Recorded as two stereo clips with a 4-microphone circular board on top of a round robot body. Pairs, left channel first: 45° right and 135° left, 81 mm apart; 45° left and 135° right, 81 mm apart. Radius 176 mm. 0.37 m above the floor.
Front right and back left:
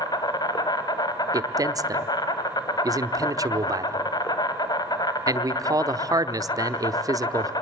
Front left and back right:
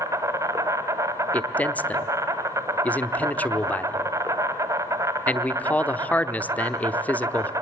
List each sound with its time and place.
0.0 s an insect: 85° right, 1.4 m
1.3 s a man speaking: 110° left, 1.2 m